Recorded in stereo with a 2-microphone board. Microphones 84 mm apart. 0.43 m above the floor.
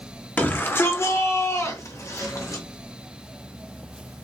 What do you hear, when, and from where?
0.4 s a shout: 25° left (ahead or behind), 0.8 m; by 2.6 s 40° left (ahead or behind), 1.6 m